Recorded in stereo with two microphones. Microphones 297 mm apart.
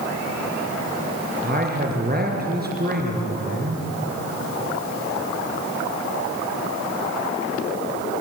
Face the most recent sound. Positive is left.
turn(degrees=-30)  # may be behind; listen again after turning